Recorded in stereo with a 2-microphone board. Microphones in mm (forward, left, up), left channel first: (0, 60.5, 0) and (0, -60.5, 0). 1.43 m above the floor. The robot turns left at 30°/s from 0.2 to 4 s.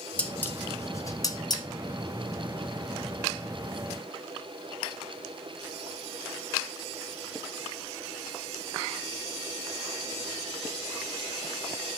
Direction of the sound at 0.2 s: 10° left (ahead or behind).